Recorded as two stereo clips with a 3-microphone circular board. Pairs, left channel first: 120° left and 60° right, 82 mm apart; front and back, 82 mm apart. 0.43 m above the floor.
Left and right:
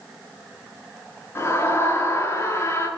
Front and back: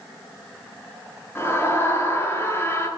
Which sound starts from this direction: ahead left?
A scream, at 1.4 s.